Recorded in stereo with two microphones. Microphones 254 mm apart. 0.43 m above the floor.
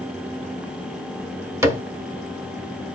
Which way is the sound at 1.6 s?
10° right (ahead or behind).